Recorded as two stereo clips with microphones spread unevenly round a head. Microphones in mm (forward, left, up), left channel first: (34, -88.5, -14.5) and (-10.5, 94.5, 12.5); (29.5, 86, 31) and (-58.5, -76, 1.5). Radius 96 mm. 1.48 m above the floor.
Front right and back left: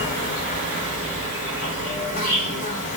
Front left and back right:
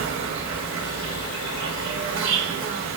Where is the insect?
125° right, 2 m.